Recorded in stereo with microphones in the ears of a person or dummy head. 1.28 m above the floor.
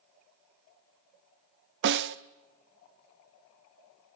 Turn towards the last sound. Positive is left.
turn(degrees=-60)  # may be behind; listen again after turning